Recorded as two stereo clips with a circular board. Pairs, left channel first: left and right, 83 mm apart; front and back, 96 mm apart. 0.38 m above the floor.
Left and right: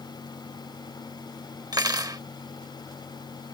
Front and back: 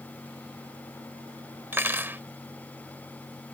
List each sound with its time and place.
1.7 s cutlery clinking: 120° right